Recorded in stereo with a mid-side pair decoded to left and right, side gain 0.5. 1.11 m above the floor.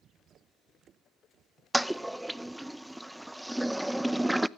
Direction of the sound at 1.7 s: 5° right.